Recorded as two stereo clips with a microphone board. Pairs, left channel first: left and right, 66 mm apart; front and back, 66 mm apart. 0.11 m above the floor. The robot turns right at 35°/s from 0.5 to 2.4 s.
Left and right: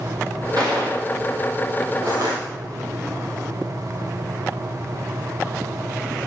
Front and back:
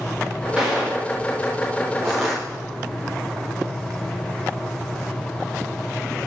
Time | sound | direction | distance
0.6 | a gunshot | 105° right | 8.5 m
2.0 | crushing | 100° right | 6.5 m